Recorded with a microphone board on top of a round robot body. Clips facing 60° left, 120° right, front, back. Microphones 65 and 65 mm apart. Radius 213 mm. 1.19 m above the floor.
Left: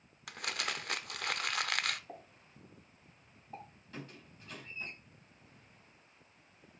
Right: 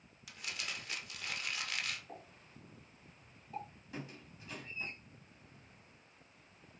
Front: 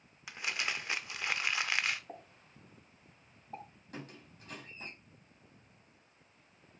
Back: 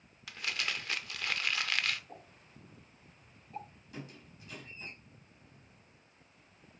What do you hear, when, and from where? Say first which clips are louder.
0.3 s crumpling: left 6 dB, even; 70° left, 0.7 m
2.1 s a pop: left 1 dB, front 2 dB; straight ahead, 2.5 m
3.9 s a squeak: right 1 dB, even; 40° right, 3 m